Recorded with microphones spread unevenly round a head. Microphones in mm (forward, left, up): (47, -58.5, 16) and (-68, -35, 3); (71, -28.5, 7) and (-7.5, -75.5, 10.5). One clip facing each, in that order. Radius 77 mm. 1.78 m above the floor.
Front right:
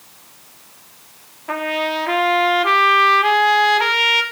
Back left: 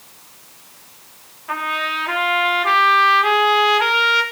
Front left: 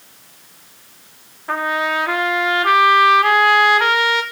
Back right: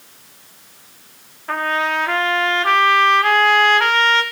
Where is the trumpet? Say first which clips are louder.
Front right 3 dB, even; 50° right, 3 m.